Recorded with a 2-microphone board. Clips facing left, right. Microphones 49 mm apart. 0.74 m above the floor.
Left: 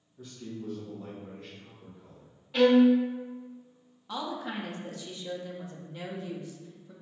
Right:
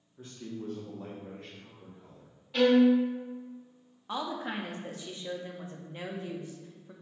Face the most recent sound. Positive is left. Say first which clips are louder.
# right 1 dB
turn(degrees=-30)  # may be behind; listen again after turning